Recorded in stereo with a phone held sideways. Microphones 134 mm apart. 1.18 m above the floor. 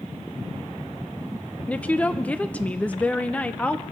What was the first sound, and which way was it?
A woman speaking, 10° left (ahead or behind).